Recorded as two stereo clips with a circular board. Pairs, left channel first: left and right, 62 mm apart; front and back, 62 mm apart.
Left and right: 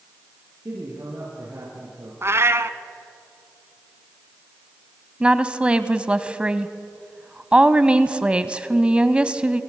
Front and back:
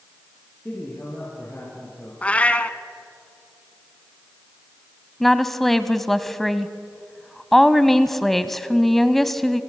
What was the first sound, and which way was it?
A man speaking, 55° right.